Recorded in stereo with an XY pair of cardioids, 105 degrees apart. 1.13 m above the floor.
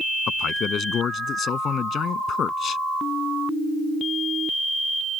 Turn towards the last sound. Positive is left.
turn(degrees=55)